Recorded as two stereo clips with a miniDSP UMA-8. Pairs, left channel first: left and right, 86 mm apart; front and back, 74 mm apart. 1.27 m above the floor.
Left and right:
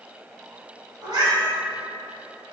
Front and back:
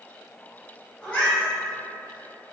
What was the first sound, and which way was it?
A cat meowing, 80° right.